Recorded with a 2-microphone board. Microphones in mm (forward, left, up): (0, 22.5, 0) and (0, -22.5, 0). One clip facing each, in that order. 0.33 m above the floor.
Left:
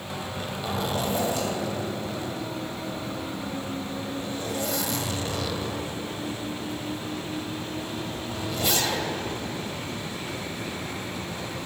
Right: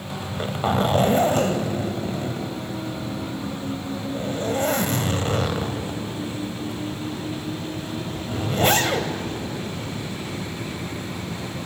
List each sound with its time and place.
0.2 s a zipper: 45° right (ahead or behind), 1.8 m